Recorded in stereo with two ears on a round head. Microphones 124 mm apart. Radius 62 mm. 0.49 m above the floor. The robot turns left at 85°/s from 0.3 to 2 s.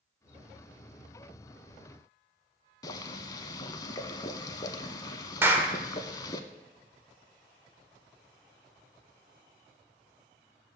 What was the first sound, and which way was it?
Boiling, 25° left (ahead or behind).